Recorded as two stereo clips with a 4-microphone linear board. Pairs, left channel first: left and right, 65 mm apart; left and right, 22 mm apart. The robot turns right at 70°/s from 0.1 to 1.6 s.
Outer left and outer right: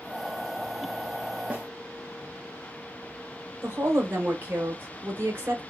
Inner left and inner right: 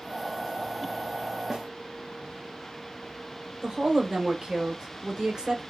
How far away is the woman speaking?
About 1.2 m.